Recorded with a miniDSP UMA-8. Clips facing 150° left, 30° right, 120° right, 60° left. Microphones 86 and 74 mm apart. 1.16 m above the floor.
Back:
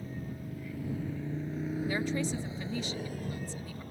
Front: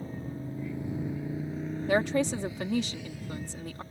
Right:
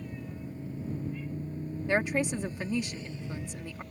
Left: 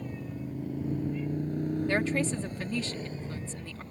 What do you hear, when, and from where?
0.0 s a motorcycle: 20° left; by 3.9 s 120° left
1.9 s a woman speaking: 45° right